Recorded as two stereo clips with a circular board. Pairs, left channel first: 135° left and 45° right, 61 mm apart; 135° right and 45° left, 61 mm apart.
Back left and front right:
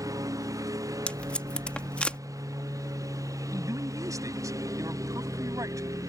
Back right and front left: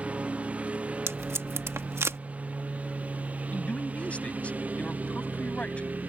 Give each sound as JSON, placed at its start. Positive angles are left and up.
{"t": 0.0, "sound": "a lawn mower", "azimuth_deg": -25}
{"t": 1.1, "sound": "tape being pulled", "azimuth_deg": 70}
{"t": 3.5, "sound": "a man speaking", "azimuth_deg": -65}